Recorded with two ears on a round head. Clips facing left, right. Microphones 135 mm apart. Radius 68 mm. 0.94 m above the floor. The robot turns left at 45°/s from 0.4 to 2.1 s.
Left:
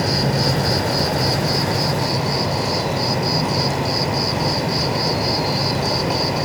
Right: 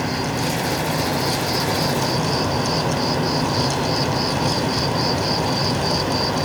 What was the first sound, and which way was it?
An insect, 95° left.